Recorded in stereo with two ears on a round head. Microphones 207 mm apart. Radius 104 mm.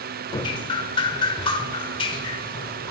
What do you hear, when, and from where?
0.3 s dripping: 20° left (ahead or behind), 0.8 m